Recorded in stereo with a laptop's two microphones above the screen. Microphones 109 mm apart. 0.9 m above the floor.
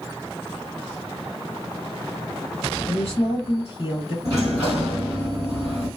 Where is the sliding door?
30° right (ahead or behind), 1.8 m.